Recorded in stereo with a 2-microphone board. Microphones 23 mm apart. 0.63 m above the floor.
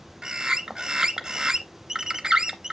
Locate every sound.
0.2 s a bird: 25° right (ahead or behind), 0.7 m